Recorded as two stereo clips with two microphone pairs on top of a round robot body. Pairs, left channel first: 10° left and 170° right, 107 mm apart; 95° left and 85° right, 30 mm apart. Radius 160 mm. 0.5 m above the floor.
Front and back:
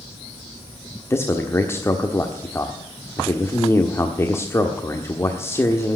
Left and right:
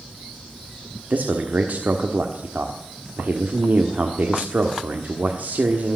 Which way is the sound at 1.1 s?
60° right.